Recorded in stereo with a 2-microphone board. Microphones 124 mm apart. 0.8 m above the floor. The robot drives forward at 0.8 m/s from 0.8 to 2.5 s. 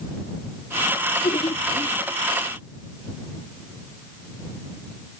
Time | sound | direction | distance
1.2 | laughter | 70° left (ahead or behind) | ?